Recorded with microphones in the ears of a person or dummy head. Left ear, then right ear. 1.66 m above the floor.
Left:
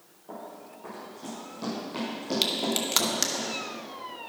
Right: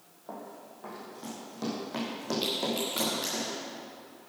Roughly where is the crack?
Left.